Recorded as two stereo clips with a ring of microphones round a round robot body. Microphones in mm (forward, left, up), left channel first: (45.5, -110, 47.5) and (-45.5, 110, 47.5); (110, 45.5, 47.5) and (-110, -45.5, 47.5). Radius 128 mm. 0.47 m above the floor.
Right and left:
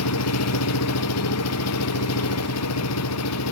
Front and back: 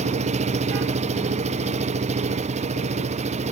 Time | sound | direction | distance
0.0 | an engine running | 95° right | ?